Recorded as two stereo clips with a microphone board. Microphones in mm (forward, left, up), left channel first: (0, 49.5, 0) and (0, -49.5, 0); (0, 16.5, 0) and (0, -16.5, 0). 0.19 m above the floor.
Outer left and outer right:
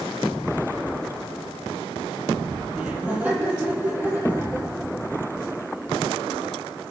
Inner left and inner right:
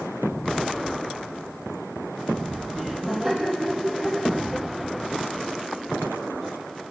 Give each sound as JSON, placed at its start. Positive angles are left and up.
{"t": 2.7, "sound": "laughter", "side_deg": -15, "distance_m": 6.0}